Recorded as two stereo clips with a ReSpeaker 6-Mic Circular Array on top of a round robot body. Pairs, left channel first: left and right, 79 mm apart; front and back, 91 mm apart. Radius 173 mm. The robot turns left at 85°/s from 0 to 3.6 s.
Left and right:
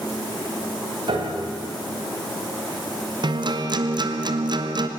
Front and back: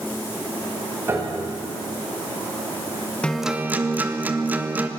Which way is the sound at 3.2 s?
75° right.